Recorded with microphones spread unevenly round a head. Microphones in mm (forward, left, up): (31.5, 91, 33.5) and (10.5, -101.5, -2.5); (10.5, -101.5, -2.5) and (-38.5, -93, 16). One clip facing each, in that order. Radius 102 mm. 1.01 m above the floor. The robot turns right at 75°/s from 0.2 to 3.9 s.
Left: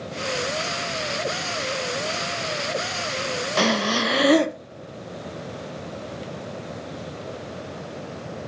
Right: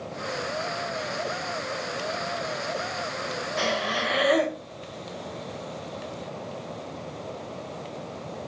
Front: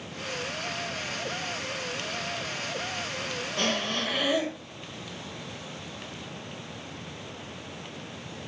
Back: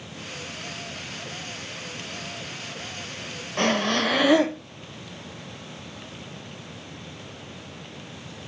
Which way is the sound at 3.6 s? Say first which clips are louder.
Left 6 dB, back 7 dB; 95° left.